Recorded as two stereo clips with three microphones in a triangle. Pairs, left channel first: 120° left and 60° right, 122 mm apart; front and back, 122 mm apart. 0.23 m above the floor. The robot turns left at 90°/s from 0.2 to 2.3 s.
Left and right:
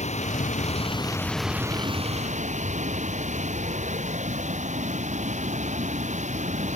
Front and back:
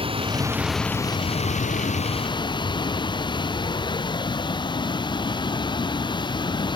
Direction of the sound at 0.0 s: 140° left.